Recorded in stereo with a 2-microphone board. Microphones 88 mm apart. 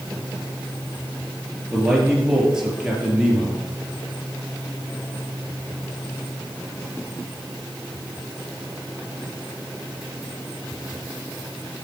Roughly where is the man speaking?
Centre.